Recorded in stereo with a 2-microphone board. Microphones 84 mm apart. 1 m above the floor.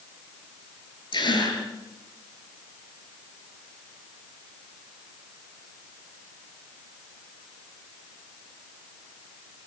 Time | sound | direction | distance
1.1 | a gasp | 65° left (ahead or behind) | 8.5 m